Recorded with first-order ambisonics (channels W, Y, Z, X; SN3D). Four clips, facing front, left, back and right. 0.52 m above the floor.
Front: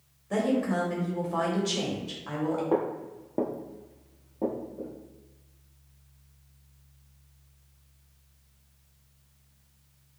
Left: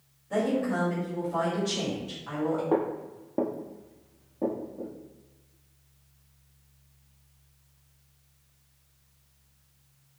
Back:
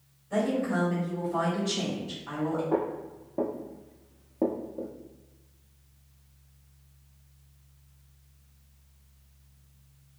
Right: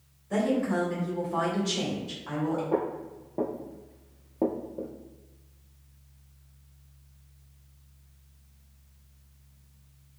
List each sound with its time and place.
0.3 s a woman speaking: 15° right, 1.5 m
2.7 s footsteps: 45° left, 0.8 m; by 4.9 s 130° right, 0.9 m